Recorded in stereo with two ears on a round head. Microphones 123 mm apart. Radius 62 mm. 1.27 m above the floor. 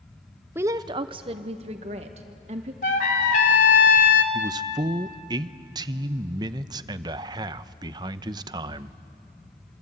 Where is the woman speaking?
15° right (ahead or behind), 0.5 m; by 2.7 s 50° right (ahead or behind), 2 m.